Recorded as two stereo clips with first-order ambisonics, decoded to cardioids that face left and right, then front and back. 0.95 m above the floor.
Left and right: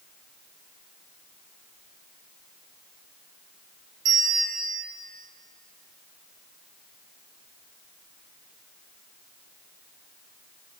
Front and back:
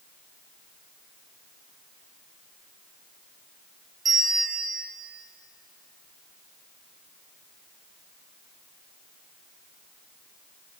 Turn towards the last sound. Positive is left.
turn(degrees=-110)